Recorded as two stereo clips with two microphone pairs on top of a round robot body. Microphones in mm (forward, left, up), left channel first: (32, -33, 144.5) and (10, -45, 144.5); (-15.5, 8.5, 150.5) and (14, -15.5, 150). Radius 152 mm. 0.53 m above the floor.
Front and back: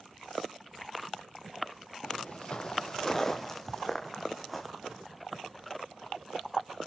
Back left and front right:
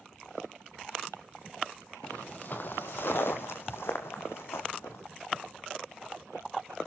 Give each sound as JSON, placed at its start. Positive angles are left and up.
{"t": 2.0, "sound": "footsteps", "azimuth_deg": 75, "distance_m": 0.7}